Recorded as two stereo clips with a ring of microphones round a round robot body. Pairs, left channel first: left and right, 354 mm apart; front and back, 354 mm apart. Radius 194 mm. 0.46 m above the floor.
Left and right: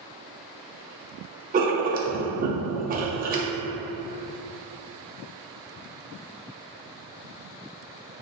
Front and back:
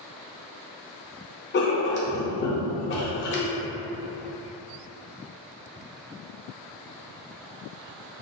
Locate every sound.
1.5 s writing: 40° right, 0.5 m